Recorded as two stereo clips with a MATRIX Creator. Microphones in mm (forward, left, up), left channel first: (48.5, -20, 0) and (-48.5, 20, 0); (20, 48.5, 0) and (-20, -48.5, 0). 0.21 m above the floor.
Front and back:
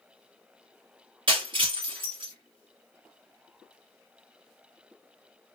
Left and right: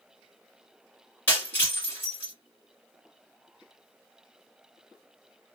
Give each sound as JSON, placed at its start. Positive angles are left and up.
{"t": 1.3, "sound": "breaking glass", "azimuth_deg": 135, "distance_m": 1.7}